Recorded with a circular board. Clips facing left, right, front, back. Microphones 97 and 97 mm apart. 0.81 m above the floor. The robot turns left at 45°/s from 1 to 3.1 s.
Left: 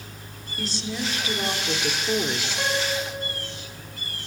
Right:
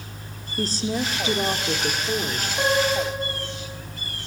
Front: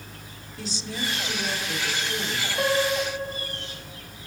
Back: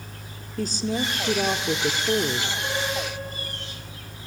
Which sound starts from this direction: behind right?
A woman speaking, at 0.6 s.